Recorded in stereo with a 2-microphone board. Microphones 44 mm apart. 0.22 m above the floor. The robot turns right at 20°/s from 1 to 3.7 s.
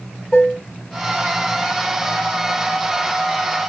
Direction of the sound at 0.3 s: 20° left (ahead or behind).